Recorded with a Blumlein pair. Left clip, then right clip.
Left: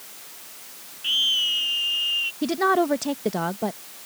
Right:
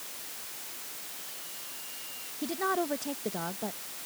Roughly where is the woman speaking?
Ahead left.